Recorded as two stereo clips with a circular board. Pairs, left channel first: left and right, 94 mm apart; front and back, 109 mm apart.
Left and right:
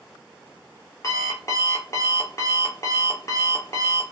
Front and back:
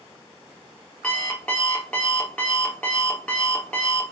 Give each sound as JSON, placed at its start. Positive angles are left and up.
{"t": 1.0, "sound": "an alarm clock", "azimuth_deg": 75, "distance_m": 1.0}